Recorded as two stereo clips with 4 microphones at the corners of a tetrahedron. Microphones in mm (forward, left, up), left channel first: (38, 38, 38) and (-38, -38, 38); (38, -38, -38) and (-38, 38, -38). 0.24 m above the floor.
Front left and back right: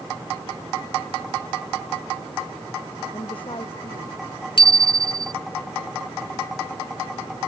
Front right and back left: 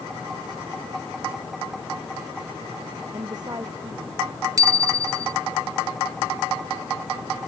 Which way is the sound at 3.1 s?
85° left.